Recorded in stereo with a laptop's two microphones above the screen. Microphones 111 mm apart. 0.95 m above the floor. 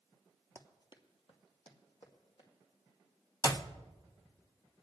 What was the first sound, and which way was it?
Running footsteps, 25° left (ahead or behind).